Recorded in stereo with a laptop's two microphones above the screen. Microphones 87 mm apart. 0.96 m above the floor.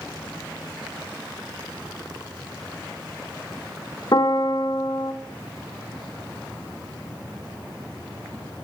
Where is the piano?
50° left (ahead or behind), 0.9 m.